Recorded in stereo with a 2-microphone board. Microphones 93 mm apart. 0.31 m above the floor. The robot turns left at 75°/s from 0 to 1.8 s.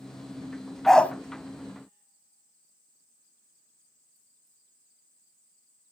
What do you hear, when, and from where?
0.9 s a dog barking: centre (ahead or behind), 0.9 m; by 1.1 s 20° left (ahead or behind), 0.9 m